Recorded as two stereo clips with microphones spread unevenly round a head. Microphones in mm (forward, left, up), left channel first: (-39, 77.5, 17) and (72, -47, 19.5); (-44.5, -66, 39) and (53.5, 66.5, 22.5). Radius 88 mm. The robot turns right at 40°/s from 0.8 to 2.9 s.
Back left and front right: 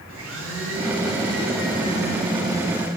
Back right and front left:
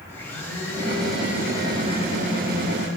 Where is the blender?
50° right, 2 m; by 2.9 s 35° left, 2 m.